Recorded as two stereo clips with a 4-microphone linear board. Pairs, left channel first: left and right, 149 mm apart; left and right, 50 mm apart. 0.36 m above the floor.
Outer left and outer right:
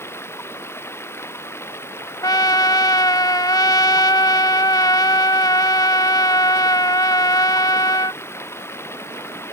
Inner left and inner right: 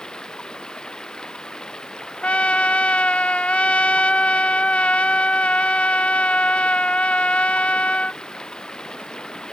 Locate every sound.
0.0 s running water: 15° left (ahead or behind)
2.2 s a trumpet: 25° left (ahead or behind)